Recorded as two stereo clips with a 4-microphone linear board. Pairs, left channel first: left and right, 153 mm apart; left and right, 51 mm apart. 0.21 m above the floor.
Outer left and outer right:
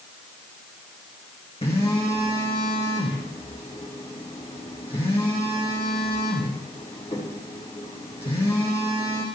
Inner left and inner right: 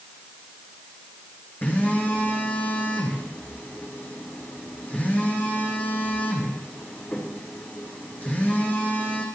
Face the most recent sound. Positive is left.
turn(degrees=40)  # may be behind; listen again after turning